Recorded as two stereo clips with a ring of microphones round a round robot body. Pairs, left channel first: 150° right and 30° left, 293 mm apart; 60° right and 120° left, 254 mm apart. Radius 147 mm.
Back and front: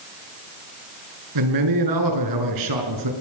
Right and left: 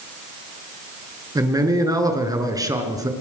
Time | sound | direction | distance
1.4 | a man speaking | 45° left | 5.5 m